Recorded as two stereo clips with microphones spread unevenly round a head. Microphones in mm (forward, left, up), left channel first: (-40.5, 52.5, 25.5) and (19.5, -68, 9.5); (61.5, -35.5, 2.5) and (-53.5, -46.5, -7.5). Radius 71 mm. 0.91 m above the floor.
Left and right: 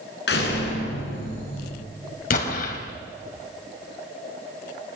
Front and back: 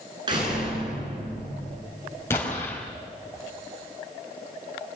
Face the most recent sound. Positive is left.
turn(degrees=80)